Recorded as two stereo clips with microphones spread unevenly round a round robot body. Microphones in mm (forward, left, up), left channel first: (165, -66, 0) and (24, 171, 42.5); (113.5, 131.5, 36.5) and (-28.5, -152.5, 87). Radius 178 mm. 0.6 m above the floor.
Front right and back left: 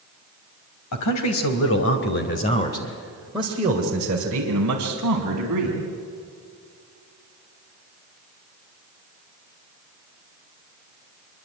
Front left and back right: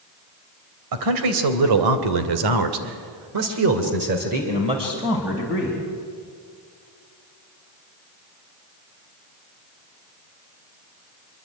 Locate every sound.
0.9 s a man speaking: 95° right, 3.5 m; by 5.8 s 155° left, 4 m